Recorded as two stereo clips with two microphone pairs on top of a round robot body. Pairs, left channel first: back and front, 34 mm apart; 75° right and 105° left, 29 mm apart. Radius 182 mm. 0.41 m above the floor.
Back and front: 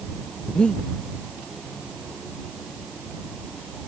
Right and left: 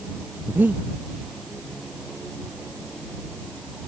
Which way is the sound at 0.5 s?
110° left.